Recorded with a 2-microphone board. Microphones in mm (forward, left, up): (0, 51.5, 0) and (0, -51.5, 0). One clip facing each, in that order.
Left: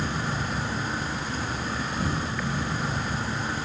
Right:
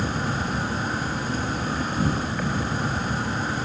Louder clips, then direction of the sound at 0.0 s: Right 3 dB; 50° right (ahead or behind).